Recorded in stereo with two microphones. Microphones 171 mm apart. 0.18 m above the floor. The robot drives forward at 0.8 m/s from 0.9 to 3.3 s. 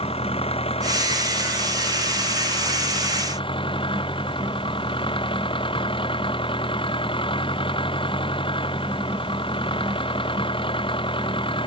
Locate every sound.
0.0 s an engine running: 35° left (ahead or behind); by 11.7 s 30° left (ahead or behind)